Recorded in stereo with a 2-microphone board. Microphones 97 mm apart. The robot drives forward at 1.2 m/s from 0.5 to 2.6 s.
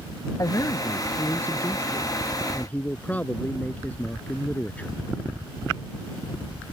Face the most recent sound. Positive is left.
turn(degrees=20)  # may be behind; listen again after turning